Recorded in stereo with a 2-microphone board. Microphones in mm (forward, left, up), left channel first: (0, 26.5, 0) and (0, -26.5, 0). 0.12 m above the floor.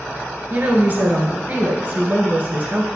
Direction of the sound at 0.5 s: 35° right (ahead or behind).